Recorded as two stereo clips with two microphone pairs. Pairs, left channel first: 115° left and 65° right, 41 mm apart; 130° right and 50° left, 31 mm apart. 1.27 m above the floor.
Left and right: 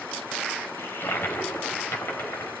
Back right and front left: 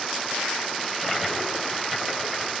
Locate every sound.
0.8 s a toilet flushing: 140° left, 4 m